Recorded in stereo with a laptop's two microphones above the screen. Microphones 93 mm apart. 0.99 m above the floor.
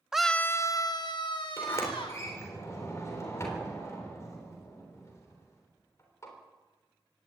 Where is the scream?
10° right (ahead or behind), 0.5 m; by 2.2 s 65° left (ahead or behind), 2 m.